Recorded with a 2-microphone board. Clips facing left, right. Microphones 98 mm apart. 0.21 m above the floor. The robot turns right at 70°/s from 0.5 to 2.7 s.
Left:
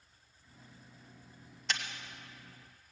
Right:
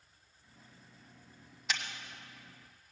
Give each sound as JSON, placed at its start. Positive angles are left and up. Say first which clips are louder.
{"t": 1.7, "sound": "a camera shutter", "louder": "even", "side_deg": -5, "distance_m": 1.4}